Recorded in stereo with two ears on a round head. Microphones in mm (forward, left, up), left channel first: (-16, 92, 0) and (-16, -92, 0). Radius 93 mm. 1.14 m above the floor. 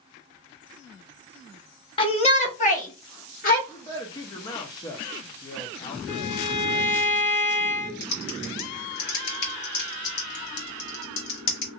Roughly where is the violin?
Left.